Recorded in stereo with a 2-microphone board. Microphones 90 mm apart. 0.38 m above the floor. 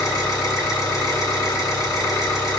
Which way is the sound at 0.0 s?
40° left (ahead or behind).